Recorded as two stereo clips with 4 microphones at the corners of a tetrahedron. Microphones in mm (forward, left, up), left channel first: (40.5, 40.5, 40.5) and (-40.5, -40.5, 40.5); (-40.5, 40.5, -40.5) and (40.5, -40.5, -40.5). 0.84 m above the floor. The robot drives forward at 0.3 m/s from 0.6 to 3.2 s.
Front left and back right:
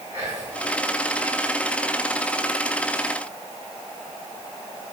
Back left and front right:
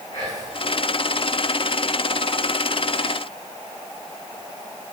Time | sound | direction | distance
0.1 | whispering | 170° left | 3 m